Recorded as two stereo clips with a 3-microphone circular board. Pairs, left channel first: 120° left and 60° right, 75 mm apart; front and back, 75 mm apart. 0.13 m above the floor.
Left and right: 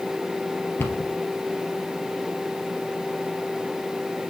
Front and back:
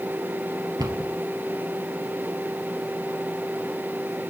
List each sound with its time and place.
0.8 s a cupboard door: 175° left, 2.5 m